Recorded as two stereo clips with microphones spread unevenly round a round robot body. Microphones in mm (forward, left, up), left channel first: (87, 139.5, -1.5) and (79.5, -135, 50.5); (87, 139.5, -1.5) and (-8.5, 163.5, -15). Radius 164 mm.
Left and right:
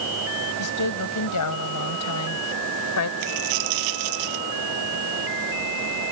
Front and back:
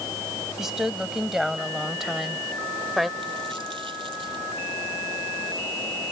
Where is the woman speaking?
80° left; by 3.1 s 75° left.